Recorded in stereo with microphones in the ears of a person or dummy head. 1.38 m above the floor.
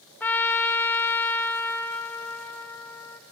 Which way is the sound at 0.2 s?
15° left (ahead or behind).